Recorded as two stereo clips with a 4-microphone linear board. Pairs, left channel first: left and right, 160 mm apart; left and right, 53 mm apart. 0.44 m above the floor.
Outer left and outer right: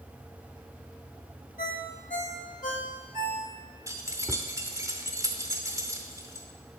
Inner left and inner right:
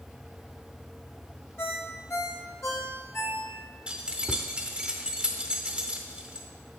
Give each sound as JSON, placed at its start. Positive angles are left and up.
{"t": 1.6, "sound": "a ringtone", "side_deg": 55, "distance_m": 1.1}
{"t": 3.9, "sound": "keys jangling", "side_deg": -20, "distance_m": 0.7}